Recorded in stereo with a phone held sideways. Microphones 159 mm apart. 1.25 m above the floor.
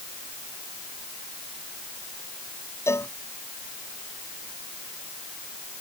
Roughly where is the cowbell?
Centre.